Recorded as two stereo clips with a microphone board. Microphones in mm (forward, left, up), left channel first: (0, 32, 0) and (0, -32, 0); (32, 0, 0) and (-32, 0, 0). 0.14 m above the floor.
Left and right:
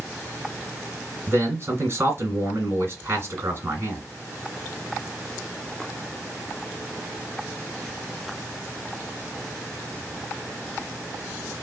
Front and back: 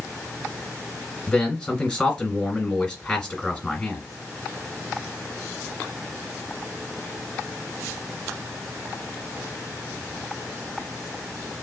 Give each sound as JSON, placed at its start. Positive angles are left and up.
{"t": 1.3, "sound": "a man speaking", "azimuth_deg": -85, "distance_m": 2.0}